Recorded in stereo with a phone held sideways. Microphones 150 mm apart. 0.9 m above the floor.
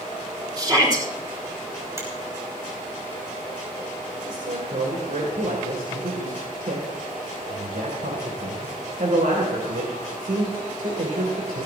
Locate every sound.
0.6 s a shout: 30° right (ahead or behind), 6 m
2.0 s a finger snap: 20° right (ahead or behind), 4.5 m
4.2 s a man speaking: 85° right, 3 m